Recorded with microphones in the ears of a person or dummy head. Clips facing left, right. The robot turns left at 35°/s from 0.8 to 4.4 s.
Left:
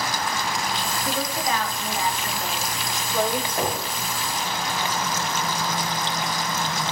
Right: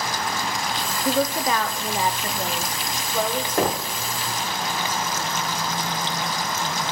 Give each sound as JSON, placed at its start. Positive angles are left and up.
{"t": 1.1, "sound": "a woman speaking", "azimuth_deg": -110, "distance_m": 0.8}
{"t": 3.6, "sound": "knocking", "side_deg": -60, "distance_m": 0.9}